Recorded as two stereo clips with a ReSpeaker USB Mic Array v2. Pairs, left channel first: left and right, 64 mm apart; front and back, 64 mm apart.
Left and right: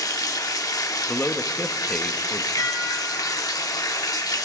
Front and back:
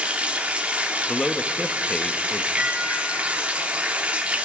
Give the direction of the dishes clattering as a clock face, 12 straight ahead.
8 o'clock.